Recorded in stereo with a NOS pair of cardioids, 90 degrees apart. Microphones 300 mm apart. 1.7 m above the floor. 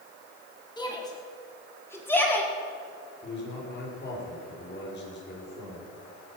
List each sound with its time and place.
0.8 s a shout: 15° left, 5.5 m; by 2.5 s 5° left, 5 m
3.2 s a man speaking: 35° left, 6.5 m